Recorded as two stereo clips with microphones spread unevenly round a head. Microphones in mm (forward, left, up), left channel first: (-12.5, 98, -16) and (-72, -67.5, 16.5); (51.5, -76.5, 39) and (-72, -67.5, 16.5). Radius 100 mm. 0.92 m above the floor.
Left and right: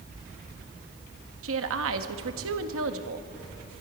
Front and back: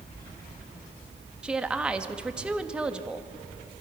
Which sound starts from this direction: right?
A woman speaking, at 1.4 s.